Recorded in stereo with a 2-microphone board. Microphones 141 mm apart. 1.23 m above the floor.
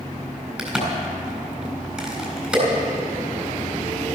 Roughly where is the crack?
Centre.